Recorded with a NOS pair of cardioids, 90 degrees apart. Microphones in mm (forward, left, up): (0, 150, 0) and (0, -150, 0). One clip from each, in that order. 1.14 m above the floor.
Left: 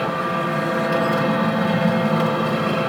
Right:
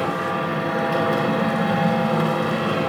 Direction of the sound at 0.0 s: 15° left.